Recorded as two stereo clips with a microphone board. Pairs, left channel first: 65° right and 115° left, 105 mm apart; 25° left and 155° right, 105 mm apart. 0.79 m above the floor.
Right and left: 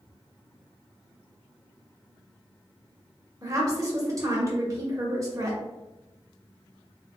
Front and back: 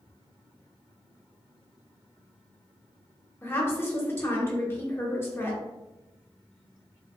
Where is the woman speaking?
75° left, 1.1 m.